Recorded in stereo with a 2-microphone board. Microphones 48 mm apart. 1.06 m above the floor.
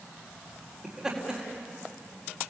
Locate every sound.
0.8 s laughter: 10° right (ahead or behind), 3.5 m